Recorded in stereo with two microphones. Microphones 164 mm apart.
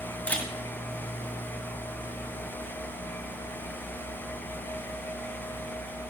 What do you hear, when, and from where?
0.3 s a camera shutter: 10° left (ahead or behind), 2.5 m